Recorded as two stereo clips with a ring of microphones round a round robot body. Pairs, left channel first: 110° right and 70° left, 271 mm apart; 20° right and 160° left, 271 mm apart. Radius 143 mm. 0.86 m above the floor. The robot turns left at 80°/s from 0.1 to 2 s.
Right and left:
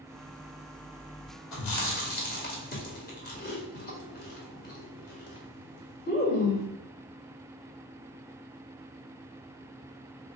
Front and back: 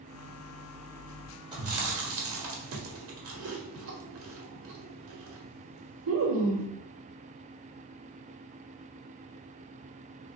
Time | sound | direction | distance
1.5 | chewing | 130° right | 1.3 m